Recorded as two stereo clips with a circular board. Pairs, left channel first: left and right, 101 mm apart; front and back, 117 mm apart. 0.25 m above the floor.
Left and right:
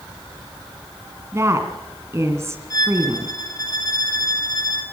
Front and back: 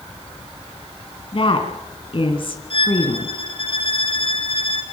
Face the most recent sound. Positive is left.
turn(degrees=40)